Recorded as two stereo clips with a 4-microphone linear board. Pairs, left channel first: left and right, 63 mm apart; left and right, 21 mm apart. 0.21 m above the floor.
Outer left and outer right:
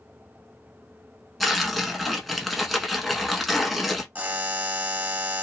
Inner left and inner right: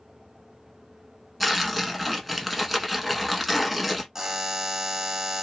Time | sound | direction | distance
1.4 | tearing paper | centre (ahead or behind) | 0.8 m
4.2 | a buzzer | 25° right (ahead or behind) | 0.9 m